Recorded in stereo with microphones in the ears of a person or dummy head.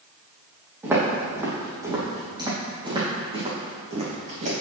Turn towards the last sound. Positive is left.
turn(degrees=-45)  # may be behind; listen again after turning